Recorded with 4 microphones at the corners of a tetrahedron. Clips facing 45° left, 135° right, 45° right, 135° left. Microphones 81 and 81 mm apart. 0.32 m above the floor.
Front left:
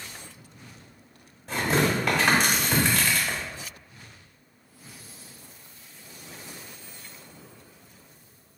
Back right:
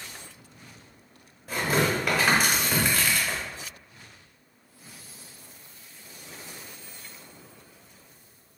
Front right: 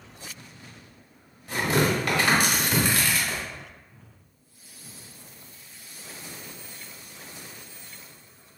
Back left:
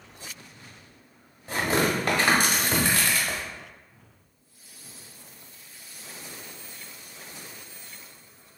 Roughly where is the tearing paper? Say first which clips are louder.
Front left 1 dB, front right 1 dB; behind left.